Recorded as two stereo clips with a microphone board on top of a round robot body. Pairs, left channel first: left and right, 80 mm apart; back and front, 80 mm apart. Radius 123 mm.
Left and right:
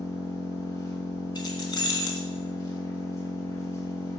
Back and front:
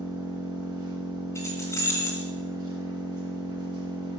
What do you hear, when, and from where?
0.0 s an engine running: 40° left, 2.5 m
1.4 s keys jangling: 125° left, 2.5 m